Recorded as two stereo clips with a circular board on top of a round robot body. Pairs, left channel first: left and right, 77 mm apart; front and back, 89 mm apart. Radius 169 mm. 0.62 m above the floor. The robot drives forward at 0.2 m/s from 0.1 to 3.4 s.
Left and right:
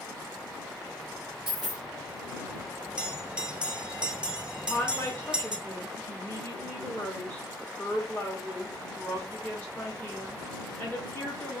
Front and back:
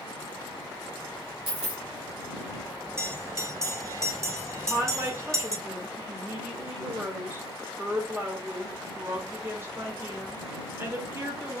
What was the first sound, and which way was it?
A dropped coin, 175° right.